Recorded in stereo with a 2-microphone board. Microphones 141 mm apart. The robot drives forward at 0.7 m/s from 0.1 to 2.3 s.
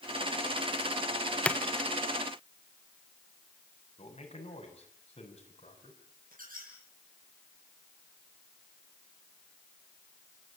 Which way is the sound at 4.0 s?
45° left (ahead or behind).